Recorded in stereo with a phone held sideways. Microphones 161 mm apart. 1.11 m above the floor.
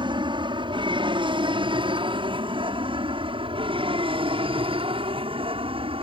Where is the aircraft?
30° right (ahead or behind); by 6.0 s 35° right (ahead or behind).